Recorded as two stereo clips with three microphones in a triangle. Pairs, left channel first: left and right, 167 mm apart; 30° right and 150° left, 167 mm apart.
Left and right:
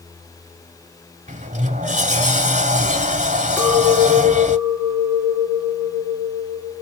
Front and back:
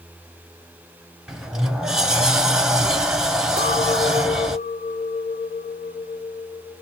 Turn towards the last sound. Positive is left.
turn(degrees=10)